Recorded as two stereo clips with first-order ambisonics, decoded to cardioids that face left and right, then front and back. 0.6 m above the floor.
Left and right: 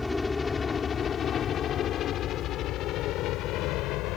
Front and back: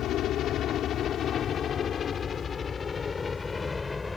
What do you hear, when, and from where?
0.0 s a helicopter: 10° left; by 4.2 s 80° left